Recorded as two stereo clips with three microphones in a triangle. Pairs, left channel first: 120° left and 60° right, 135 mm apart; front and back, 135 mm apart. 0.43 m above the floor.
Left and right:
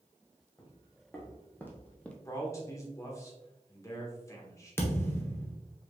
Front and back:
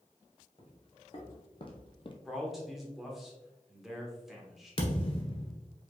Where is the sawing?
I don't hear sawing.